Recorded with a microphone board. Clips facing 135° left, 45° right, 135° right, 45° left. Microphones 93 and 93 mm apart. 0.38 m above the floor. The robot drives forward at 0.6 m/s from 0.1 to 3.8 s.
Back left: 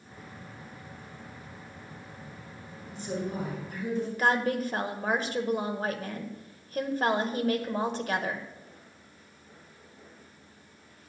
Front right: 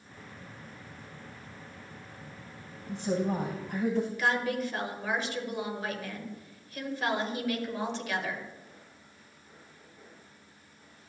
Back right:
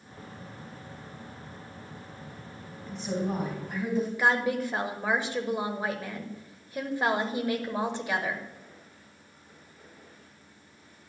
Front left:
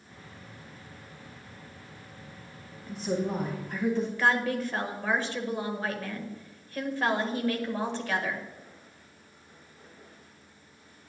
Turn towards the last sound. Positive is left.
turn(degrees=160)